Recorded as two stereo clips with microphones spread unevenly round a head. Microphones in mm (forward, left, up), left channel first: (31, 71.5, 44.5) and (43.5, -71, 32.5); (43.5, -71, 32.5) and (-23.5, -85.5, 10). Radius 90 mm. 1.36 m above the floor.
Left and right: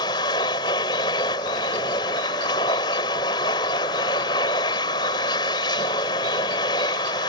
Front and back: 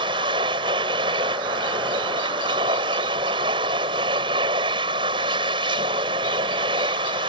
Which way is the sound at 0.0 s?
160° left.